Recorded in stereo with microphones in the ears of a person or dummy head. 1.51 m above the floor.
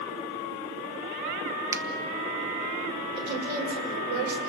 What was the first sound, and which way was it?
A finger snap, 15° right (ahead or behind).